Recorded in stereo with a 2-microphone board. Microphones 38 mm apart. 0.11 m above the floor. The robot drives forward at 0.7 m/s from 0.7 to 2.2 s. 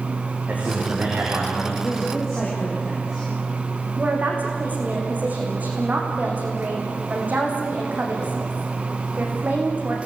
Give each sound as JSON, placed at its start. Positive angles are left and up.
{"t": 0.5, "sound": "a man speaking", "side_deg": -40, "distance_m": 7.5}
{"t": 1.8, "sound": "a man speaking", "side_deg": 0, "distance_m": 8.5}
{"t": 4.0, "sound": "a woman speaking", "side_deg": -40, "distance_m": 7.0}